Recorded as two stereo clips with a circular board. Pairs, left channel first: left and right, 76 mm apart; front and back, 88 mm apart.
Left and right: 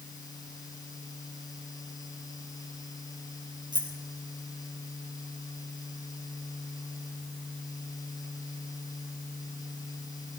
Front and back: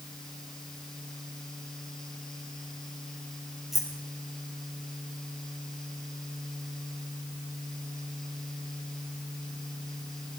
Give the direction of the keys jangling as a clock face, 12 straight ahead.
3 o'clock.